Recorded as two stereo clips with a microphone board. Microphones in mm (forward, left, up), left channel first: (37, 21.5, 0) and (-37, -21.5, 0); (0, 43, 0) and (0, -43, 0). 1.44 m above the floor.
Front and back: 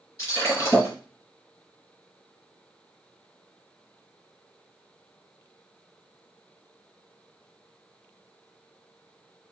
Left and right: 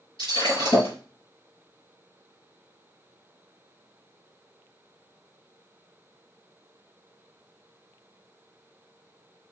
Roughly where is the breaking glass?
Left.